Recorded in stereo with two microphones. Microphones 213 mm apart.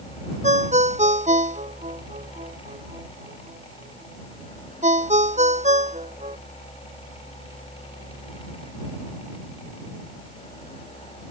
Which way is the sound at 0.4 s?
35° right (ahead or behind).